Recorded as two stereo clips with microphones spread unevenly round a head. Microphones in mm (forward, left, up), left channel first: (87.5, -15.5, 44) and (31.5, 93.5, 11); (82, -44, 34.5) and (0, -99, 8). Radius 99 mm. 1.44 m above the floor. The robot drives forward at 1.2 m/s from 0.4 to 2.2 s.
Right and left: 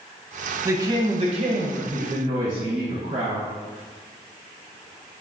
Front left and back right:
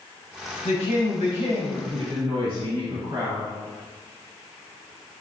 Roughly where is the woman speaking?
Ahead left.